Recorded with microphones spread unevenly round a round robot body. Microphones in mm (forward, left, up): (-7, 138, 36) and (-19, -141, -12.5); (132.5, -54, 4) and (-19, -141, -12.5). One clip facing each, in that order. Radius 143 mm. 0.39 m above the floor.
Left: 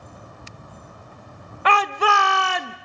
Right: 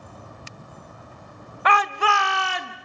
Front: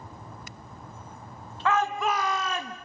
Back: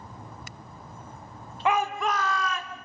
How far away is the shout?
About 1.2 m.